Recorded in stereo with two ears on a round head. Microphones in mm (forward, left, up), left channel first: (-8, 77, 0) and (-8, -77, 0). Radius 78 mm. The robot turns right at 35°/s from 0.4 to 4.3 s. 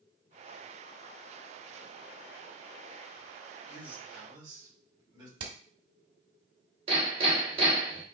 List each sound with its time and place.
3.7 s a man speaking: 5° right (ahead or behind), 3 m; by 5.3 s 25° right (ahead or behind), 3 m
5.4 s hammering: 75° right (ahead or behind), 1.3 m
6.9 s hammering: 40° right (ahead or behind), 2 m